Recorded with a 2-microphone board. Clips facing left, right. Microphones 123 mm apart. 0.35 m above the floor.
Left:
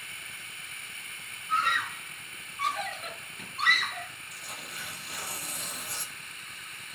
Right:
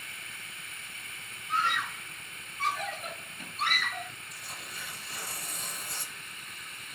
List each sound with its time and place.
1.5 s a scream: 65° left (ahead or behind), 7 m; by 4.1 s 75° left (ahead or behind), 5 m
4.3 s tearing paper: 70° left (ahead or behind), 7.5 m